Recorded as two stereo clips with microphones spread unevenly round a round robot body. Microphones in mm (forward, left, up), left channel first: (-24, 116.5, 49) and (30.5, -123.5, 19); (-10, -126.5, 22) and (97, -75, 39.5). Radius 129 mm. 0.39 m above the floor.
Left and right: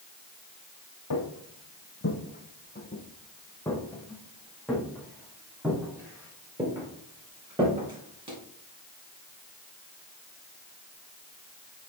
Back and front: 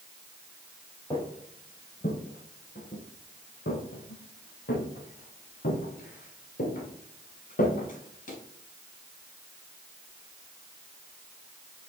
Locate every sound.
1.1 s footsteps: 125° left, 1.3 m; by 8.4 s 150° right, 4 m